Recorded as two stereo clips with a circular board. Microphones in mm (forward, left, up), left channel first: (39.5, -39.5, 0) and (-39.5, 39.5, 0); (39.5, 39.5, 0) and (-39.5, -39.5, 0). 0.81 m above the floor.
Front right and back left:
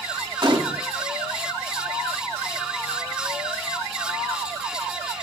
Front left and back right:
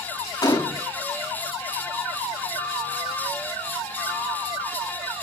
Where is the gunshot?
95° left, 1.5 m.